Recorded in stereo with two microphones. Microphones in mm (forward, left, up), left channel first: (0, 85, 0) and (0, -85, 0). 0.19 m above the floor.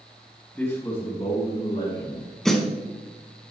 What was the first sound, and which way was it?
A man speaking, 10° left (ahead or behind).